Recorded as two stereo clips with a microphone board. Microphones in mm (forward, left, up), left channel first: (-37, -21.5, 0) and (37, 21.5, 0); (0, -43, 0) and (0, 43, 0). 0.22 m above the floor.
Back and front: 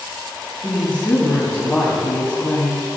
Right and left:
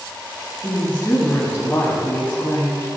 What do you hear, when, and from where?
0.6 s a woman speaking: 100° right, 1.6 m